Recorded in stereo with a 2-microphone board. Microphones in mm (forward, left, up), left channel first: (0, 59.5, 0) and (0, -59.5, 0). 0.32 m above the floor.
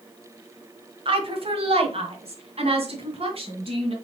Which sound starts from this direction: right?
A woman speaking, at 1.1 s.